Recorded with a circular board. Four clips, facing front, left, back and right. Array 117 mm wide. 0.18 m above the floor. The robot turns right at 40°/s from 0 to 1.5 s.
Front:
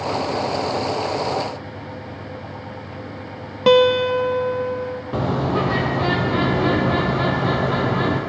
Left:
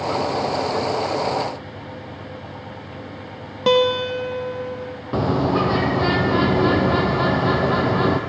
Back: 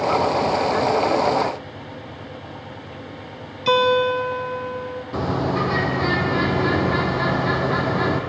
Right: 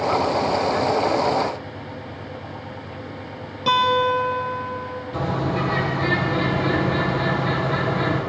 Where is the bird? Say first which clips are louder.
Left 5 dB, front 1 dB; 70° left, 5 m.